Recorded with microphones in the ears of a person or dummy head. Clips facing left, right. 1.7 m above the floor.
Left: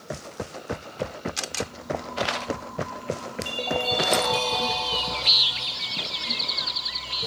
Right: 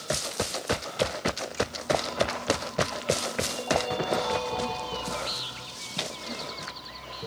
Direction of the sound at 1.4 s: 85° left.